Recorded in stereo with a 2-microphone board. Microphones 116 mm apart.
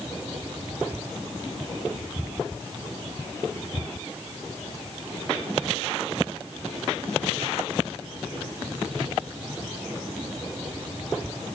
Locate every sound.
Only background noise.